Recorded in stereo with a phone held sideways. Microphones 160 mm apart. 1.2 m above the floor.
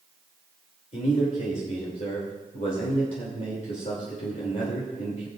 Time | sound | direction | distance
0.9 | a man speaking | 50° left (ahead or behind) | 3 m